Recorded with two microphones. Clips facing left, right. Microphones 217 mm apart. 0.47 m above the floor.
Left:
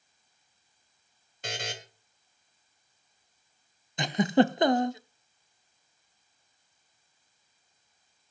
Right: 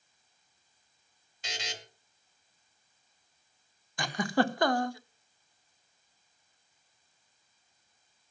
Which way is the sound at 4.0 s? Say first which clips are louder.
Left 6 dB; 20° left (ahead or behind).